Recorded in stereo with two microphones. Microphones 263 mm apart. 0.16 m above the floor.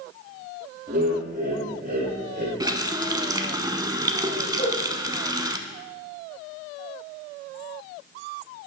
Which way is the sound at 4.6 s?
30° left (ahead or behind).